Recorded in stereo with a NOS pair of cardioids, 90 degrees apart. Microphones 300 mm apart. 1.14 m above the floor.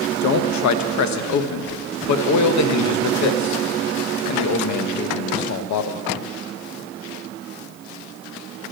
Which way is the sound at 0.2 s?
65° left.